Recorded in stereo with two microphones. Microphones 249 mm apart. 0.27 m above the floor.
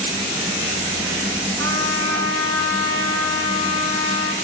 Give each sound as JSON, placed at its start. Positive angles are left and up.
{"t": 1.6, "sound": "a trumpet", "side_deg": -65, "distance_m": 1.6}